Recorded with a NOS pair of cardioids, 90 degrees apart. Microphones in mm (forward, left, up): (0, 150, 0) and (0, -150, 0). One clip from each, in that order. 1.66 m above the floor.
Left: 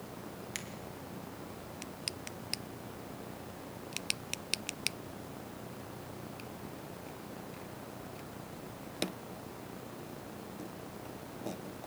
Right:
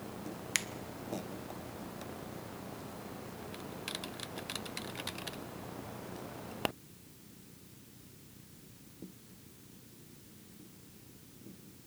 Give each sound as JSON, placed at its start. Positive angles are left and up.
{"t": 0.6, "sound": "a finger snap", "azimuth_deg": -50, "distance_m": 1.2}